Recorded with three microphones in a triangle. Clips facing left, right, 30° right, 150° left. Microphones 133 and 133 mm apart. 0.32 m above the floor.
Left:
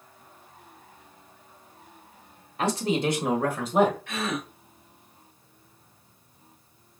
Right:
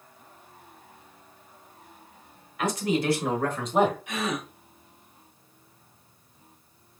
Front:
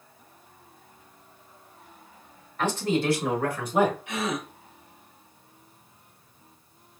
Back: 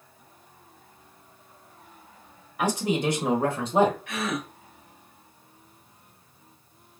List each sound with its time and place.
2.6 s a man speaking: 80° left, 1.4 m; by 4.0 s 170° right, 1.4 m
4.1 s a gasp: 50° right, 1.6 m